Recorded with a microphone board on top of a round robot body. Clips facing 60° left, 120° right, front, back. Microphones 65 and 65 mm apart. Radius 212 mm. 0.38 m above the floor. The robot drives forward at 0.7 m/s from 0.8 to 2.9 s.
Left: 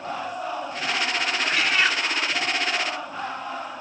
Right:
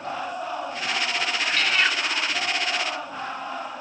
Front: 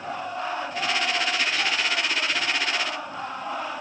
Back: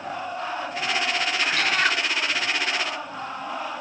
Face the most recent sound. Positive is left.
turn(degrees=150)